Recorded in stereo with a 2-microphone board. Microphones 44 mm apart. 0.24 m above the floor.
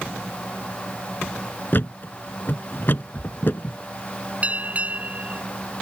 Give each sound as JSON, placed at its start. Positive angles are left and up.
{"t": 1.7, "sound": "a thud", "side_deg": 55}
{"t": 4.4, "sound": "a bell", "side_deg": -35}